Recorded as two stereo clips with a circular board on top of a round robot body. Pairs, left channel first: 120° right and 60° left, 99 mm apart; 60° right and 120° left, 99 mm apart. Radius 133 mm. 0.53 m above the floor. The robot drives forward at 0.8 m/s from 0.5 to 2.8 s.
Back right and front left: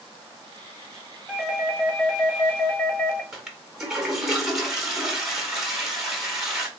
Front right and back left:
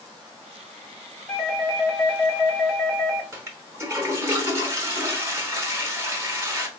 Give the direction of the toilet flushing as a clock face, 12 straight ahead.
7 o'clock.